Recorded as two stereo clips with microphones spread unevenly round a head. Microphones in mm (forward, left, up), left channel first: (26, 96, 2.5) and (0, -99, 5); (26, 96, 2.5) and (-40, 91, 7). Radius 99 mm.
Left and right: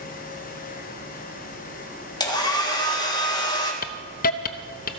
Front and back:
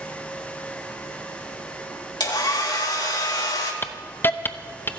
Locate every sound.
2.2 s a hair dryer: 10° left, 2 m
3.8 s a hiss: 55° left, 0.8 m